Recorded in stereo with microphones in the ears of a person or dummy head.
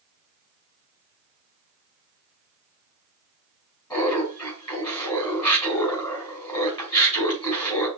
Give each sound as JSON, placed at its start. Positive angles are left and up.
{"t": 3.9, "sound": "laughter", "side_deg": 20, "distance_m": 2.5}